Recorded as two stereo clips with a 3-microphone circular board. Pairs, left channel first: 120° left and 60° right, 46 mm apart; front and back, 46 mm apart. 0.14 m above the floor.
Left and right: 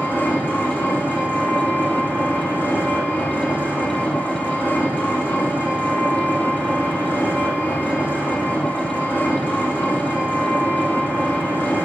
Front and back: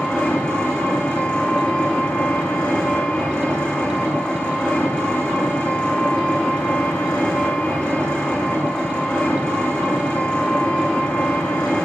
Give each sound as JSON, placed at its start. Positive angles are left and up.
{"t": 0.0, "sound": "an engine running", "azimuth_deg": 70, "distance_m": 6.5}